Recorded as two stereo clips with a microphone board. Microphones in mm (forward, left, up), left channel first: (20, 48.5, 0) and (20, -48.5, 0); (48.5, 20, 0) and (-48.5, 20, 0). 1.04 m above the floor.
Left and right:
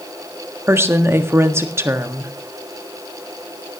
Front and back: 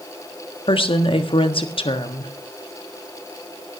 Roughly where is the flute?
I don't hear a flute.